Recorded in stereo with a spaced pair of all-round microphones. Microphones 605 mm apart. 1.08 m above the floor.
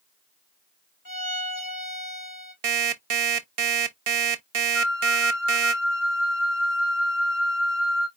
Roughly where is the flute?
Left.